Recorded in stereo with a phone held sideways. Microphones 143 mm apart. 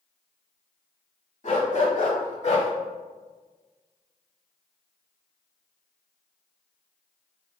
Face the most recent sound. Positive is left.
turn(degrees=45)  # may be behind; listen again after turning